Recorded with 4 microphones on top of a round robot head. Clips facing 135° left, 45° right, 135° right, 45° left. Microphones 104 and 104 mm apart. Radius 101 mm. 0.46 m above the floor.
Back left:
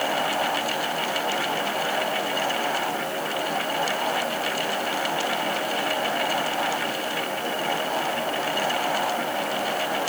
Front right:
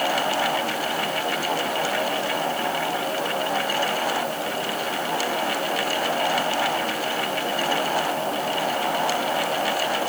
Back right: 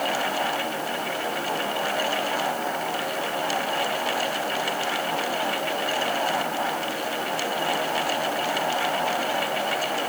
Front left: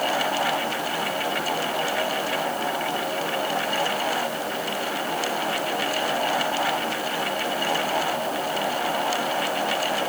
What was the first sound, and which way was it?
Only background noise.